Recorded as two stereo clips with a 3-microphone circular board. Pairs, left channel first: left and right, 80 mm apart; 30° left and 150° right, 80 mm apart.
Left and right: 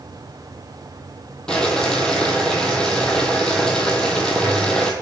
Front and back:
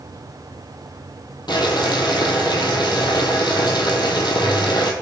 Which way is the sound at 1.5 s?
10° left.